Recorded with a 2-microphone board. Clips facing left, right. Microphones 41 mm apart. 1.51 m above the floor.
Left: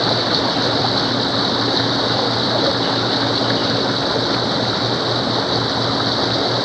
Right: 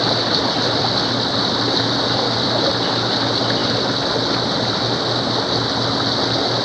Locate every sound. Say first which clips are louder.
0.0 s running water: left 1 dB; 5° left (ahead or behind)